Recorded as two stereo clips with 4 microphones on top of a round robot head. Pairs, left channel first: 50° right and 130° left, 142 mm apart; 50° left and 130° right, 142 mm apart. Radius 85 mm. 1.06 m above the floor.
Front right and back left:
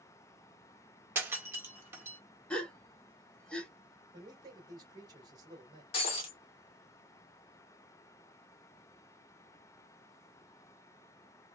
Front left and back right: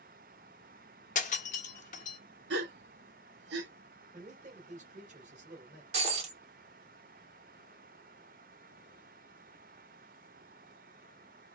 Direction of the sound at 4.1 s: 165° right.